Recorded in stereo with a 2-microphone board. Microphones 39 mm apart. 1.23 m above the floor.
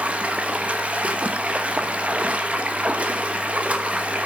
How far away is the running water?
About 1.2 m.